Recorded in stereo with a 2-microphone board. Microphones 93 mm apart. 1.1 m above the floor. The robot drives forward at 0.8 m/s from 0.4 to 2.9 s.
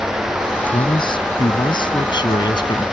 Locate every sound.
0.7 s a man speaking: 55° left (ahead or behind); by 2.9 s 50° left (ahead or behind)